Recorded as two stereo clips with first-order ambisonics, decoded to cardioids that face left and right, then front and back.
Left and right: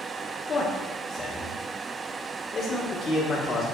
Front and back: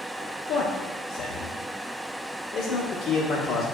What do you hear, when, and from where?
0.5 s a man speaking: 30° left, 0.8 m